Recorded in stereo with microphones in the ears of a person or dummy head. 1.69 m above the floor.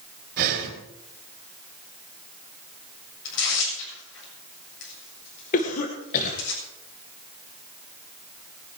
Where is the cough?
45° left (ahead or behind), 2.0 m.